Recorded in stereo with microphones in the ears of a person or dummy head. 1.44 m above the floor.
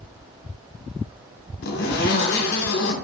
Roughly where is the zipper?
Left.